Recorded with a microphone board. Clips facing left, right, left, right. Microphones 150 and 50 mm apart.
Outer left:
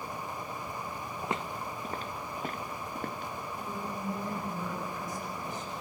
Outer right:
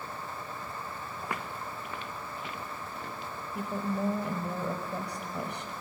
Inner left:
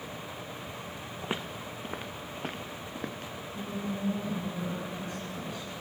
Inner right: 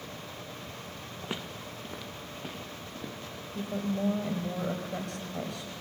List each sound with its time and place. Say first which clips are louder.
1.2 s footsteps: outer left 3 dB, inner left 3 dB; 20° left (ahead or behind), 0.9 m; by 3.3 s 55° left (ahead or behind), 2 m
3.5 s a woman speaking: outer right 9 dB, inner right 4 dB; 70° right (ahead or behind), 4 m